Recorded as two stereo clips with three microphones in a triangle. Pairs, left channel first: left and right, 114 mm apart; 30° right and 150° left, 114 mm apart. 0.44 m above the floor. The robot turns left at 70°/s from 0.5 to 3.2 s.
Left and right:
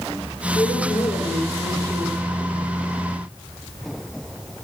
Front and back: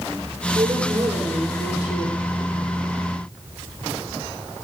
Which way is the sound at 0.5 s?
110° left.